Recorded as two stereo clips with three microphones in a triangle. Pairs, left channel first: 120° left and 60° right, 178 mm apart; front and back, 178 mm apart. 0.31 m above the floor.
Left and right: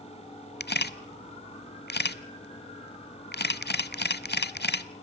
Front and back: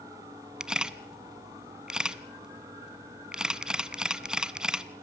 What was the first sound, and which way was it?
A camera shutter, 95° left.